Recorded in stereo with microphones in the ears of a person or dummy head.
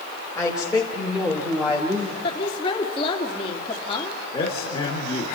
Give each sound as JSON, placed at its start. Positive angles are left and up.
{"t": 0.3, "sound": "a woman speaking", "side_deg": 5, "distance_m": 4.0}
{"t": 2.2, "sound": "a woman speaking", "side_deg": 30, "distance_m": 3.0}
{"t": 4.3, "sound": "a man speaking", "side_deg": 25, "distance_m": 4.0}